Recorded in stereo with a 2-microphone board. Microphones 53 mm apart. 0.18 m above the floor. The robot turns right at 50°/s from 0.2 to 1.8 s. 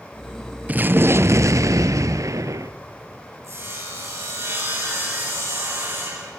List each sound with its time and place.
0.7 s an explosion: 150° right, 0.6 m; by 2.7 s 95° right, 0.6 m
3.4 s sawing: 60° right (ahead or behind), 7.5 m